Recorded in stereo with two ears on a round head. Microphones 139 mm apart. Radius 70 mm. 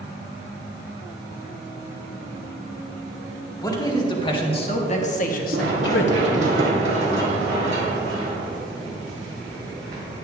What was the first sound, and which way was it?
A man speaking, 25° left (ahead or behind).